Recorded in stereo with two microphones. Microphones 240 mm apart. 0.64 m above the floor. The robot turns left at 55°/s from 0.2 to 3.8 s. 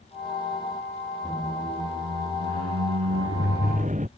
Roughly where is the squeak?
Ahead.